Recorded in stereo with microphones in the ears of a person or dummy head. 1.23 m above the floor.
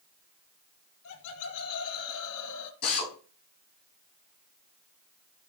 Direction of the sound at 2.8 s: 55° left (ahead or behind).